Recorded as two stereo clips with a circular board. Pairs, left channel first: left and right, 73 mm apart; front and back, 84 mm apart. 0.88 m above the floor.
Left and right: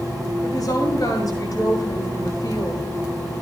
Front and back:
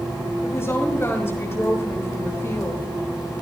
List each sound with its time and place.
0.4 s a woman speaking: 60° left, 5.5 m